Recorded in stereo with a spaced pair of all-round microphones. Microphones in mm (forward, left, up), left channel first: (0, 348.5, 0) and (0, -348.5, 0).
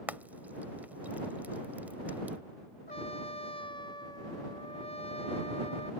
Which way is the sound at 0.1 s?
Centre (ahead or behind).